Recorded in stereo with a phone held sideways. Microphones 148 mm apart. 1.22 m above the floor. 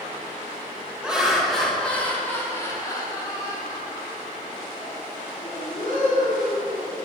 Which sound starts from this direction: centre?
Laughter, at 1.0 s.